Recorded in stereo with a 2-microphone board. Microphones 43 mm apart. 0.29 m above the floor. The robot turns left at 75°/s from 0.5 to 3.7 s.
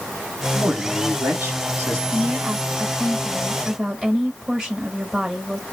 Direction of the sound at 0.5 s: 20° right.